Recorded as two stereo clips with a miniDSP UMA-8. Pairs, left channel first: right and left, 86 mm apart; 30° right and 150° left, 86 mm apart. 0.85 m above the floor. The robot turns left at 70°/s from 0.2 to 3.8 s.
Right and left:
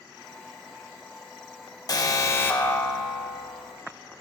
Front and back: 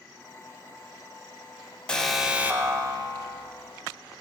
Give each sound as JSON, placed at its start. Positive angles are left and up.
{"t": 1.9, "sound": "an alarm", "azimuth_deg": -105, "distance_m": 1.1}